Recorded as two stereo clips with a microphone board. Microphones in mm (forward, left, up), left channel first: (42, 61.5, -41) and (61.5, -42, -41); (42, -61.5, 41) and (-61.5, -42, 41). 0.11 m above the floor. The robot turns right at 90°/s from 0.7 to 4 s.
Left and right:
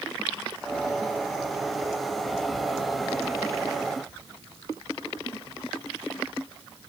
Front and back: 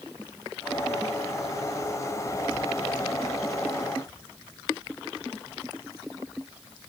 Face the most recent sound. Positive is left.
No sound to turn to.